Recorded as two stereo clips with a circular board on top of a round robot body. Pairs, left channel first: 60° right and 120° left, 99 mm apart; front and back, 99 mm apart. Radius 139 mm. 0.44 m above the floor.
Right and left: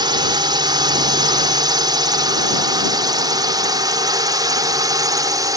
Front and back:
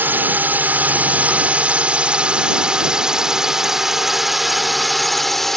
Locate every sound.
0.0 s a drone: 115° left; by 5.6 s 85° left